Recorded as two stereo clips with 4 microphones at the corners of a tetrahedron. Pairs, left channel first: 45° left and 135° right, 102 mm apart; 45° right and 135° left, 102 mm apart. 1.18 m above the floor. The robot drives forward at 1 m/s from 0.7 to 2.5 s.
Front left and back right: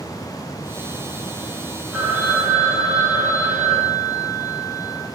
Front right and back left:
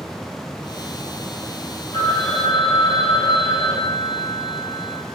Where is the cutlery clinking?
I don't hear cutlery clinking.